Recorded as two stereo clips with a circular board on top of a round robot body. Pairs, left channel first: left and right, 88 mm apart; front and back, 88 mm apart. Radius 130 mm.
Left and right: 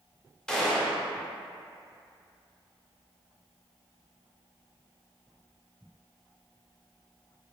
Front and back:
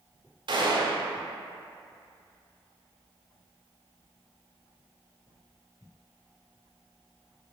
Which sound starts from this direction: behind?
A gunshot, at 0.5 s.